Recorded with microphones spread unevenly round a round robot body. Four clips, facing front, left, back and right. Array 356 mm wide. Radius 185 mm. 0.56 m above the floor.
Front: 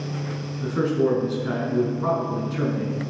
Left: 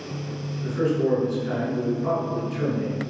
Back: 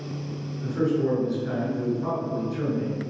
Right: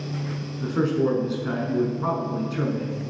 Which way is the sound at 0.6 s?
50° right.